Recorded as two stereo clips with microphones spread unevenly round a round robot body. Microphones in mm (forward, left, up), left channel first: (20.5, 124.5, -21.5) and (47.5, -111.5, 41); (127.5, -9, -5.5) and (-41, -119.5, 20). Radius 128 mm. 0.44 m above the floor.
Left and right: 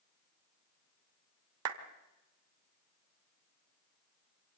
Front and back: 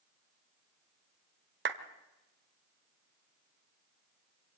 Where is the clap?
115° right, 1.6 m.